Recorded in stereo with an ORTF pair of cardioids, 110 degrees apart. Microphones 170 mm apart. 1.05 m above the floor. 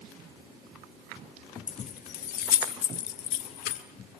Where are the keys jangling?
40° left, 1.1 m; by 3.8 s 80° left, 2 m.